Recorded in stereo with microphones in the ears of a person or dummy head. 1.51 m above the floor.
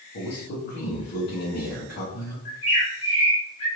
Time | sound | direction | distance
0.1 | a man speaking | 55° left (ahead or behind) | 1.0 m
2.5 | a bird | 25° left (ahead or behind) | 0.9 m